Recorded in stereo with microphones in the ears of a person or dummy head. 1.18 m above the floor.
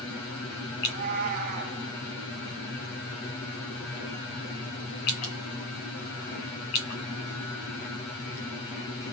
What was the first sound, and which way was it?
A cat meowing, 50° right (ahead or behind).